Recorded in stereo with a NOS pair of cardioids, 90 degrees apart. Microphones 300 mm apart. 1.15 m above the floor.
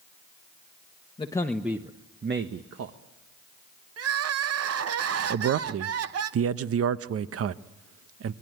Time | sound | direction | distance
1.2 | a man speaking | 15° left | 1.2 m
4.0 | crying | 55° right | 0.9 m
5.3 | a man speaking | 50° right | 0.8 m